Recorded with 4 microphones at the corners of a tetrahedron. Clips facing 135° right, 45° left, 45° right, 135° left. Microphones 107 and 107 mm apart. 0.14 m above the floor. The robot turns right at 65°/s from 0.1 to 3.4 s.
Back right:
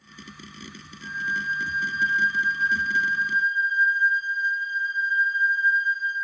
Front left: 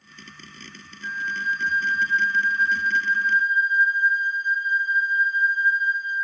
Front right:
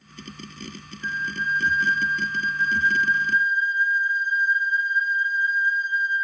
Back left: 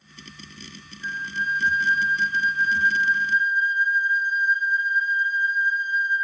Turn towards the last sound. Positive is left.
turn(degrees=170)